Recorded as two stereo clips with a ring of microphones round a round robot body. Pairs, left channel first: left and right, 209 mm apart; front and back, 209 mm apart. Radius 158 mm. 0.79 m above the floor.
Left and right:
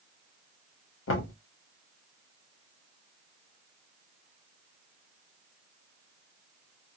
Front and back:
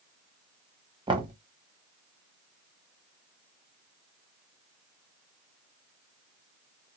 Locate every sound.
1.1 s knocking: 110° left, 1.0 m